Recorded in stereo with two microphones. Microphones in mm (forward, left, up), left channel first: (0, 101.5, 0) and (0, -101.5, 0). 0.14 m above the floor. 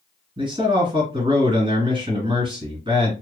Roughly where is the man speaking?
Right.